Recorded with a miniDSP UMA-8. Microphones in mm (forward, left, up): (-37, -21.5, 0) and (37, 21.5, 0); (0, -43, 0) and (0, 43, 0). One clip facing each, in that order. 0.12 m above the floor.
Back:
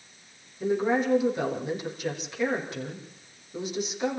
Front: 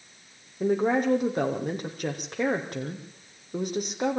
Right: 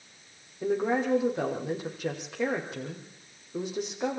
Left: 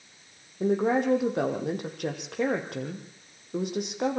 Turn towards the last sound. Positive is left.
turn(degrees=70)